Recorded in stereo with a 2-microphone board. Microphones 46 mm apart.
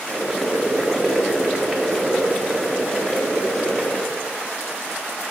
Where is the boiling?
5° left (ahead or behind), 0.9 m.